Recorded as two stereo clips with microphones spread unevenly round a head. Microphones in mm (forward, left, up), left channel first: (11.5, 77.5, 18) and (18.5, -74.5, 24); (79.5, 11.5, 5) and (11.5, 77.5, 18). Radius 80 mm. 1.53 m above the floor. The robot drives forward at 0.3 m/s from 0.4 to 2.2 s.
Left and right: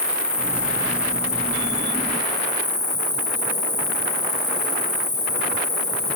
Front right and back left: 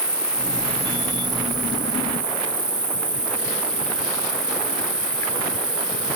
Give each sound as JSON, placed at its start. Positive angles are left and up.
{"t": 0.0, "sound": "an insect", "azimuth_deg": 115}